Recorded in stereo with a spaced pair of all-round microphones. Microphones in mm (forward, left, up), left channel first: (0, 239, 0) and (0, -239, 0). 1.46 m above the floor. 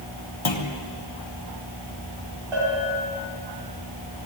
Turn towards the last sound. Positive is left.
turn(degrees=-75)  # may be behind; listen again after turning